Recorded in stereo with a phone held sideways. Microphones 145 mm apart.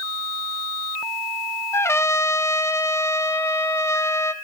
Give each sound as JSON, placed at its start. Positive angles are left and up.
{"t": 1.7, "sound": "a trumpet", "side_deg": 20, "distance_m": 0.6}